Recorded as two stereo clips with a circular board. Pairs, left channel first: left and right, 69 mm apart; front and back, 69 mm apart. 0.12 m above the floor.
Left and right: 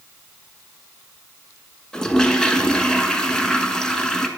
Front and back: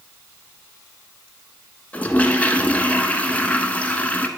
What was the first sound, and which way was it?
A toilet flushing, 25° left.